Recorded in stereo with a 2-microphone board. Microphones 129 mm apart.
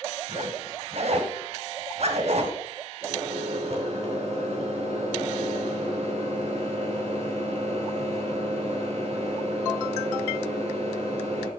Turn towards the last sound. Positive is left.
turn(degrees=-55)  # may be behind; listen again after turning